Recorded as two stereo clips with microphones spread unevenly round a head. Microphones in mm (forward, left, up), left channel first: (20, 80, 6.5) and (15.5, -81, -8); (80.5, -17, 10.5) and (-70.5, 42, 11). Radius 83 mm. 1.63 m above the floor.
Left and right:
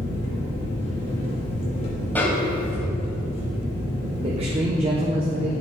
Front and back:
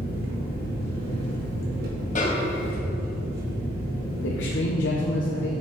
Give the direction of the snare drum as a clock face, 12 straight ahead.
12 o'clock.